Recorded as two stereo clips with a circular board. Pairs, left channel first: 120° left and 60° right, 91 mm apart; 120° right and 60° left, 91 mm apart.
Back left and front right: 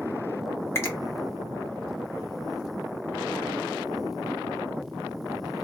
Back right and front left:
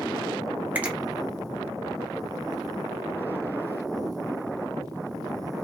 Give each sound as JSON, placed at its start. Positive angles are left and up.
{"t": 0.8, "sound": "a finger snap", "azimuth_deg": 110, "distance_m": 0.8}